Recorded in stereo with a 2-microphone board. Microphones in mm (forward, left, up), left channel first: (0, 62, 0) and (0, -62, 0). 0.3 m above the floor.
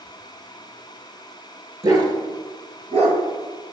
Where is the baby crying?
No baby crying in this recording.